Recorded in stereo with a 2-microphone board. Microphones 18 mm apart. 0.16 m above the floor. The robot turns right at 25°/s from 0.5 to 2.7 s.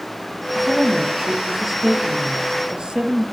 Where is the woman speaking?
165° right, 3.5 m; by 3.2 s 110° right, 3.5 m.